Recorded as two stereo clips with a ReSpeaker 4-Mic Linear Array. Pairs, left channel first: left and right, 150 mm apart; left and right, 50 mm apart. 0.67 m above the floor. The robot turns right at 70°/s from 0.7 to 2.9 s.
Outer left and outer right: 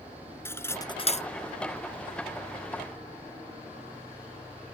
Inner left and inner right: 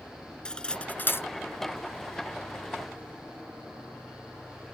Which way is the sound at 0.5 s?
15° left (ahead or behind).